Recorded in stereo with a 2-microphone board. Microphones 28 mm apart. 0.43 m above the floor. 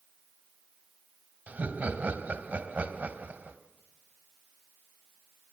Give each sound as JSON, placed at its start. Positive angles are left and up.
{"t": 1.5, "sound": "laughter", "side_deg": -60, "distance_m": 2.5}